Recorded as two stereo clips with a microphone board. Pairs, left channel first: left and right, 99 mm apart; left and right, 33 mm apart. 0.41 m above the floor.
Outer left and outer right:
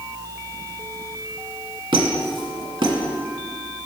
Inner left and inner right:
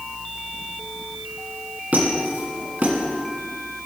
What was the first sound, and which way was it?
A squeak, 55° right (ahead or behind).